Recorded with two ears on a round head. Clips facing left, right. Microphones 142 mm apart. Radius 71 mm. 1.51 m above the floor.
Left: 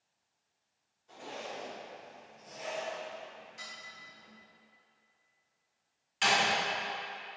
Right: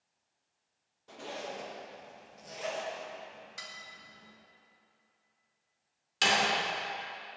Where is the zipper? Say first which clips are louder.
Right 2 dB; 70° right (ahead or behind), 2.5 m.